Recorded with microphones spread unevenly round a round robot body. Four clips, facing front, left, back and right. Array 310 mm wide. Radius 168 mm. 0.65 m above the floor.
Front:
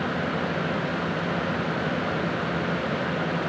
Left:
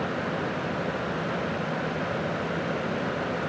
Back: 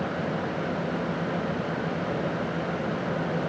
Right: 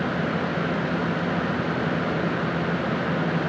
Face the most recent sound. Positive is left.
No sound to turn to.